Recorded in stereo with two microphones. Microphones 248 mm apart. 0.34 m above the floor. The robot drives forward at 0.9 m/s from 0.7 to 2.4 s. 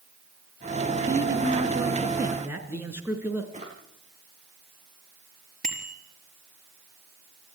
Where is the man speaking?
10° right (ahead or behind), 4 m.